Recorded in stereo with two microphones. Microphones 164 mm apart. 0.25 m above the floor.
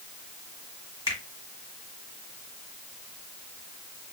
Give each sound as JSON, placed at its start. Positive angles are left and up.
{"t": 1.1, "sound": "a finger snap", "side_deg": -20, "distance_m": 1.7}